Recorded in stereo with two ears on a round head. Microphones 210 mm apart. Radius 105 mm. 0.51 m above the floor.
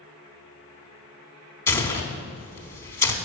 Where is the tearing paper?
10° left (ahead or behind), 0.8 m.